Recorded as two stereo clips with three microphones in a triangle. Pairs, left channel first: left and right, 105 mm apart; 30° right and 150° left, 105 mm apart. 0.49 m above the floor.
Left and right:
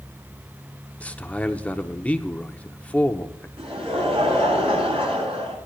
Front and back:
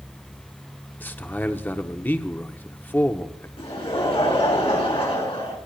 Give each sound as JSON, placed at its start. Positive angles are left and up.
{"t": 1.0, "sound": "a man speaking", "azimuth_deg": 25, "distance_m": 0.8}
{"t": 3.6, "sound": "laughter", "azimuth_deg": -60, "distance_m": 6.5}